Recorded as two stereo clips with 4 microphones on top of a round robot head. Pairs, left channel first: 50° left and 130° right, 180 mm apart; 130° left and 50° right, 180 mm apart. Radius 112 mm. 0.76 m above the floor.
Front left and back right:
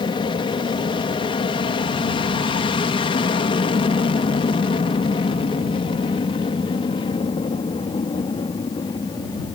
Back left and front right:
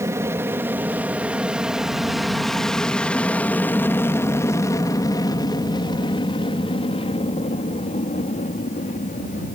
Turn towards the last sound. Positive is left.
turn(degrees=105)